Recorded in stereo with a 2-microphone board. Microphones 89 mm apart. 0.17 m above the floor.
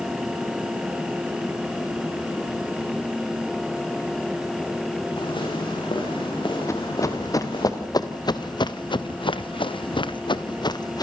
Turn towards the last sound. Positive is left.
turn(degrees=50)  # may be behind; listen again after turning